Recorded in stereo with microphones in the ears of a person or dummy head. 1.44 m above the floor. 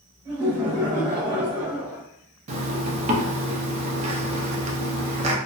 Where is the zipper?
35° right (ahead or behind), 0.5 m.